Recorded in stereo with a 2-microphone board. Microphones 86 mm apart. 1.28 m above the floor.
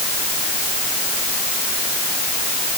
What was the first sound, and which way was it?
Only background noise.